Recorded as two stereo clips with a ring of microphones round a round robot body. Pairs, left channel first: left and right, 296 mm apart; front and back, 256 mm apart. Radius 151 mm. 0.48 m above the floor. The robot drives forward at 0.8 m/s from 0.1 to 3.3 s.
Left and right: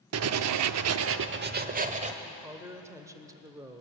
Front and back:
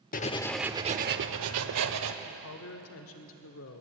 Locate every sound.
0.1 s writing: 55° right, 0.7 m; by 2.1 s 160° right, 1.4 m
2.2 s a woman speaking: 10° right, 2 m; by 3.8 s 15° right, 1.4 m